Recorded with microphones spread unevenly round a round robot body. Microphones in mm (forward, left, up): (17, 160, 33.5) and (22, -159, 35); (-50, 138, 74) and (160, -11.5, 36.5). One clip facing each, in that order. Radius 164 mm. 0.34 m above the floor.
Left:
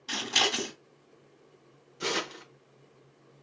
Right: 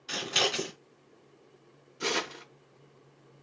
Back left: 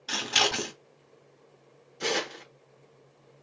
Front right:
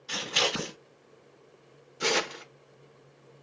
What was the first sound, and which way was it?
Scissors, 160° left.